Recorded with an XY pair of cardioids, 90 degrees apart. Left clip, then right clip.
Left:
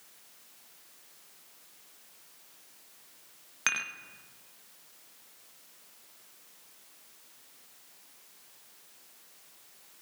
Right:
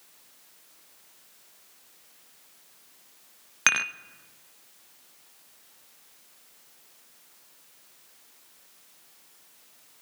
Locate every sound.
3.7 s dishes clattering: 60° right, 0.5 m